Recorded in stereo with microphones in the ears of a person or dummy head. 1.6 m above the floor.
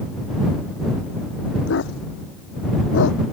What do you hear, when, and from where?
1.7 s a dog barking: 85° left; by 3.2 s 80° left